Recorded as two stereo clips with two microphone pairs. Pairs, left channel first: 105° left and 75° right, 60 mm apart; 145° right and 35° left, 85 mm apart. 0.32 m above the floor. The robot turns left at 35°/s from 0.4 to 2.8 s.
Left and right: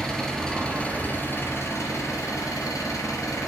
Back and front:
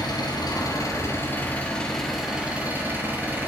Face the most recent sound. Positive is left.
turn(degrees=100)